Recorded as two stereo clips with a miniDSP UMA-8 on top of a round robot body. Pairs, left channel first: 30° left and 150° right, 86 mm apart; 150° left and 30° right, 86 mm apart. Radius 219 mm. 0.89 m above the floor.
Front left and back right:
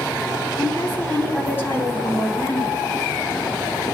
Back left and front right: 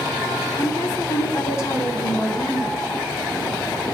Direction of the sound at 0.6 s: 95° left.